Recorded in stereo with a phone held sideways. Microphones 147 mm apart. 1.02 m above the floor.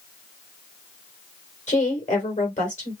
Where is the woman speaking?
50° left (ahead or behind), 2.5 m.